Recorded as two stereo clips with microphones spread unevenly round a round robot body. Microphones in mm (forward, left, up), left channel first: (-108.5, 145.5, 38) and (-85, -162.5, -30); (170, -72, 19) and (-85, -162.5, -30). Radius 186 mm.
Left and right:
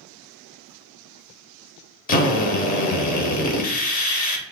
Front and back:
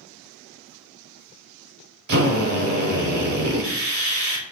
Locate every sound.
2.1 s a drill: 165° left, 0.8 m